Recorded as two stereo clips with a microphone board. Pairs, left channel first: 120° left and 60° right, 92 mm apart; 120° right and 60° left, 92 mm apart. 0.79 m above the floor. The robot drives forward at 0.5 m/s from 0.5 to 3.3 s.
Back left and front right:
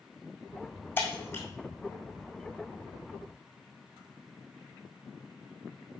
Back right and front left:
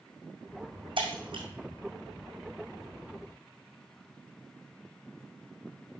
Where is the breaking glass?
55° left, 1.8 m; by 1.4 s 60° left, 1.7 m.